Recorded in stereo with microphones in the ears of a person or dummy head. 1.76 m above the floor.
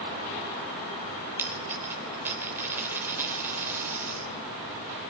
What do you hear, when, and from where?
1.4 s a dropped coin: 10° right (ahead or behind), 2.5 m